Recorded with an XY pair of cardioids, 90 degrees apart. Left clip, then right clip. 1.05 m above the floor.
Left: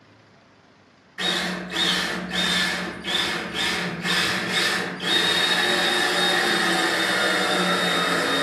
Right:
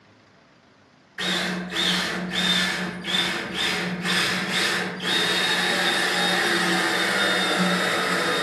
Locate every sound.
1.2 s a drill: 5° left, 1.0 m